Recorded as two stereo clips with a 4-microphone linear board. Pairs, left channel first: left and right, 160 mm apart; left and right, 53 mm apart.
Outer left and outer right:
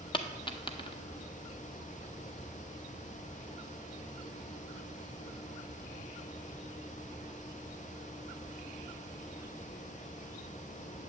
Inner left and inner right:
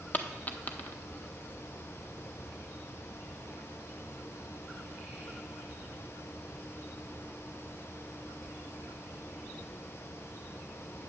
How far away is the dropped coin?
About 0.6 m.